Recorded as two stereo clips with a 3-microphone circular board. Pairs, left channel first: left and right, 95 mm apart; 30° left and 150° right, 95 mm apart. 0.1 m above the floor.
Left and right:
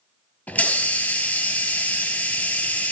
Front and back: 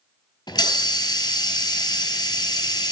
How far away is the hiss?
About 2.0 m.